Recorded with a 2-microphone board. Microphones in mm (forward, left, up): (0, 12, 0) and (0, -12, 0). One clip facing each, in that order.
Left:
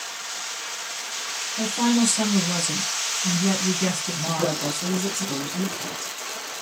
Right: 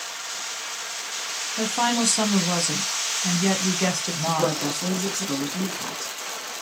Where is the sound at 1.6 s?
35° right (ahead or behind), 1.2 m.